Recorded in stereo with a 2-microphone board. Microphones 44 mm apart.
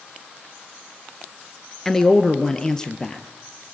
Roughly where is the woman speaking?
Centre.